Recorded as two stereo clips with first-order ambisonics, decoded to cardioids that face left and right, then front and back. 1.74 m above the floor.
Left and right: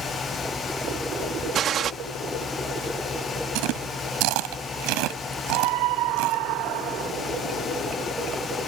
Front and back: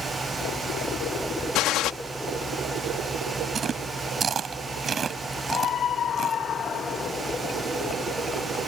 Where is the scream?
60° right.